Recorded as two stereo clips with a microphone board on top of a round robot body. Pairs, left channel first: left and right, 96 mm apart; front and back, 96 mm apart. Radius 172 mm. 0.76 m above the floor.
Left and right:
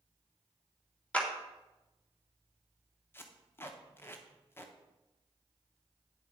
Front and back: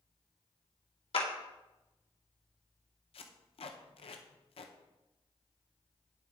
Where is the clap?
15° left, 2 m.